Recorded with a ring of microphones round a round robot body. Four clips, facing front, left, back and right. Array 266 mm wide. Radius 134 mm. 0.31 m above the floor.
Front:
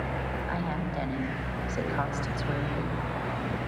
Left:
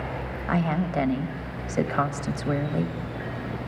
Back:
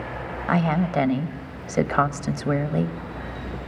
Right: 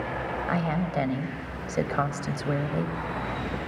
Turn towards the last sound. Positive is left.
turn(degrees=175)